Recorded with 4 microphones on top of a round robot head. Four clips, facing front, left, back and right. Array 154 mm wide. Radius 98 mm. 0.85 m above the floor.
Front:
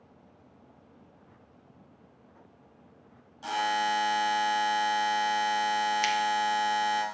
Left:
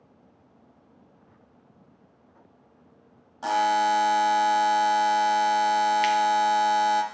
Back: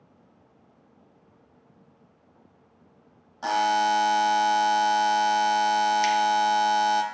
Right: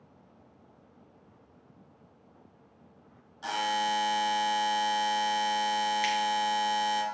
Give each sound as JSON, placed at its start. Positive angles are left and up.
{"t": 3.4, "sound": "a buzzer", "azimuth_deg": 130, "distance_m": 0.7}
{"t": 6.0, "sound": "scissors", "azimuth_deg": 70, "distance_m": 0.7}